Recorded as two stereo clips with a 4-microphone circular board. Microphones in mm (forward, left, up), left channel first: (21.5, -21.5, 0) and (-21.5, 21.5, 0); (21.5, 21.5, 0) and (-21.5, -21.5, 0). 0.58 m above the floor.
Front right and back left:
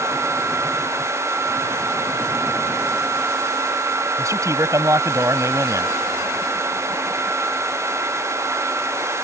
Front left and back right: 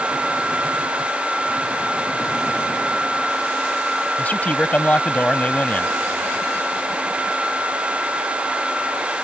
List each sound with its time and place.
4.2 s a man speaking: 110° left